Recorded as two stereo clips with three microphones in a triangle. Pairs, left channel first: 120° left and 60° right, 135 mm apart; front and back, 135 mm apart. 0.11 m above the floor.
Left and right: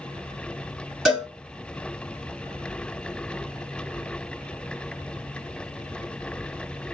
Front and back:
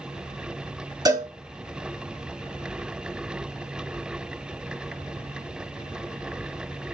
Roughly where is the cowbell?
Behind right.